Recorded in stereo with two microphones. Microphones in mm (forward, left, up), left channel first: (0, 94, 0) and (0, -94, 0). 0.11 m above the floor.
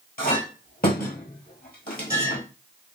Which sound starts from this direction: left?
A clink, at 0.2 s.